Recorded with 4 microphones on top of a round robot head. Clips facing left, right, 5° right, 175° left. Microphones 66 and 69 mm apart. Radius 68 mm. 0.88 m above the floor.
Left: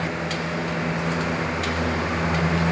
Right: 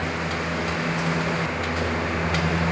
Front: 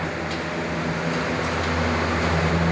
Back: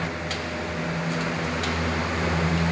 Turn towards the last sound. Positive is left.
No sound to turn to.